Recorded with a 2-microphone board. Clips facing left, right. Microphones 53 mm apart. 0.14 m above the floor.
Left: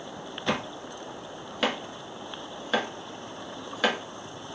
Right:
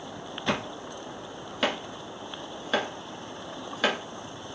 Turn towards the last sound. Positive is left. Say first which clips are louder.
# even
turn(degrees=0)  # may be behind; listen again after turning